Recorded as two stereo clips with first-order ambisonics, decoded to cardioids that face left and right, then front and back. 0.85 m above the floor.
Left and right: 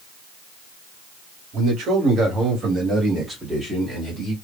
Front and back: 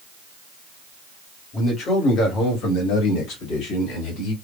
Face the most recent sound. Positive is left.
turn(degrees=5)